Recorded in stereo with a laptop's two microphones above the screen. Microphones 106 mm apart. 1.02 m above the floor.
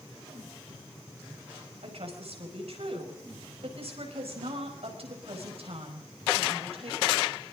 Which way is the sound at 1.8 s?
70° right (ahead or behind).